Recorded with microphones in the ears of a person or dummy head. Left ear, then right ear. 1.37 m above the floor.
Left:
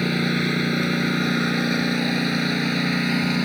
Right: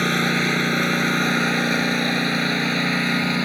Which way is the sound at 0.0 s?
40° right (ahead or behind).